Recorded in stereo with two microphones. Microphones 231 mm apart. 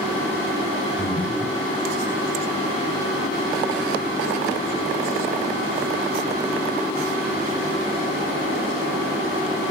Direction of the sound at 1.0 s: 30° left (ahead or behind).